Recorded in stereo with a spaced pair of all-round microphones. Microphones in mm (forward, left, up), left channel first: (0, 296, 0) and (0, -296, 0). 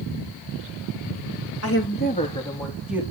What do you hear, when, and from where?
1.6 s a woman speaking: 25° left (ahead or behind), 3 m; by 3.0 s 5° right (ahead or behind), 3.5 m